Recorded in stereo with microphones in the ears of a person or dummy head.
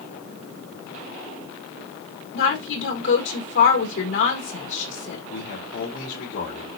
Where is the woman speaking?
70° left (ahead or behind), 4.5 m.